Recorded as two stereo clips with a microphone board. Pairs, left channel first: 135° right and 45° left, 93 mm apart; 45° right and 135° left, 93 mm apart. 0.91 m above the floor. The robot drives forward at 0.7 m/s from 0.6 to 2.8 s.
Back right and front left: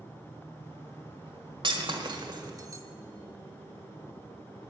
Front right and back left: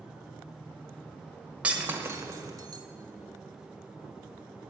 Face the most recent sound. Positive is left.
turn(degrees=100)